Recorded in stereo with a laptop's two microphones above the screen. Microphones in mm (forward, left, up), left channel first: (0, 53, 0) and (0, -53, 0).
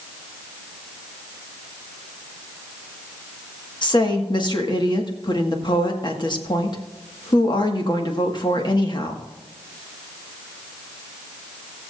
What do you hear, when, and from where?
3.8 s a woman speaking: 45° left (ahead or behind), 1.7 m